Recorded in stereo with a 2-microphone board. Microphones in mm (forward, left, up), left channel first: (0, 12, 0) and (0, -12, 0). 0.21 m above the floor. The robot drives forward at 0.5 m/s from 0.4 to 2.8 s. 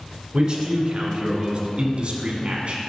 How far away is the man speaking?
About 1.9 m.